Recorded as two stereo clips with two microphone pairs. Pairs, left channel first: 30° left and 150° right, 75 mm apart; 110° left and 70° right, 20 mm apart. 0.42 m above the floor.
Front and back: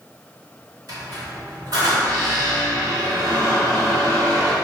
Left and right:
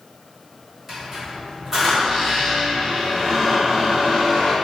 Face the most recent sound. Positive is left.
turn(degrees=-140)